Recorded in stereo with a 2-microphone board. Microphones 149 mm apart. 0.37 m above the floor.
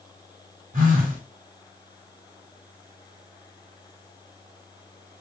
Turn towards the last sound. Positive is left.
turn(degrees=-60)  # may be behind; listen again after turning